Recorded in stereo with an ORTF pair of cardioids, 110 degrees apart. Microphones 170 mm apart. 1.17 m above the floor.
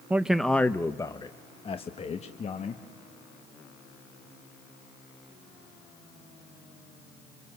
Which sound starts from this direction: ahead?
A man speaking, at 0.1 s.